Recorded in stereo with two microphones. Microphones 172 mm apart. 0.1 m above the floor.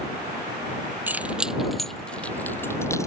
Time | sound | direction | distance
1.1 | keys jangling | 10° right (ahead or behind) | ?